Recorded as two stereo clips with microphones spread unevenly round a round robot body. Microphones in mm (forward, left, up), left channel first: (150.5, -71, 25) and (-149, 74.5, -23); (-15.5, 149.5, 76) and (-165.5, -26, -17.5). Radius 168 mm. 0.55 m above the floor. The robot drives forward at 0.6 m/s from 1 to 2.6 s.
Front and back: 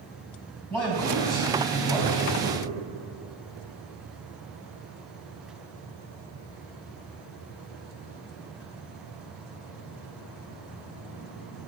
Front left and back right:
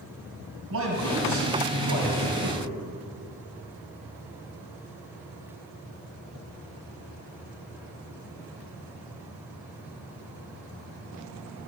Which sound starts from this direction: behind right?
A man speaking, at 0.7 s.